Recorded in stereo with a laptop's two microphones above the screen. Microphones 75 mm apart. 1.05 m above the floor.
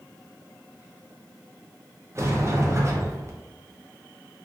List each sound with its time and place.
2.1 s a sliding door: 35° right (ahead or behind), 0.6 m